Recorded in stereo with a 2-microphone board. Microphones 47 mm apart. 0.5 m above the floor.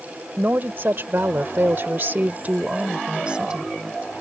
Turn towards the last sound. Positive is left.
turn(degrees=-15)  # may be behind; listen again after turning